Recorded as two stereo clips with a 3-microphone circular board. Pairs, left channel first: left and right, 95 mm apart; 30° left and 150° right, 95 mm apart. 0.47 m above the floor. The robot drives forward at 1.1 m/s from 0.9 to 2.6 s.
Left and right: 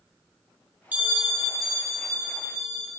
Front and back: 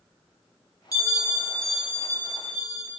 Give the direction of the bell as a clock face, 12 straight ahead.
1 o'clock.